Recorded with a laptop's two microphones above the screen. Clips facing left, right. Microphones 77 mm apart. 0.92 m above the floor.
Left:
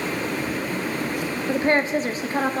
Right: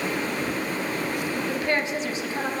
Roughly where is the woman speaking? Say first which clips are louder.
Left 8 dB; left.